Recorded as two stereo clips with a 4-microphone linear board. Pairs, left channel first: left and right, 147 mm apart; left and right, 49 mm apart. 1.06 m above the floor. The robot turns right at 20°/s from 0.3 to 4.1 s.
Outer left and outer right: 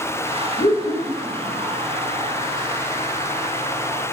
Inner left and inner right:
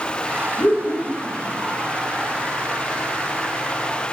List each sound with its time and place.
0.6 s laughter: 35° left (ahead or behind), 1.3 m; by 1.6 s 50° left (ahead or behind), 1.3 m